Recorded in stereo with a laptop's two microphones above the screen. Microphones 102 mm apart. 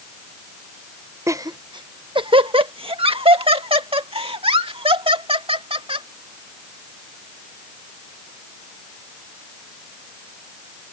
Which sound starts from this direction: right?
Laughter, at 1.3 s.